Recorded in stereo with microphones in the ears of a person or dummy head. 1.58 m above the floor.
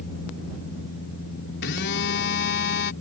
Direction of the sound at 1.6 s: 70° left (ahead or behind).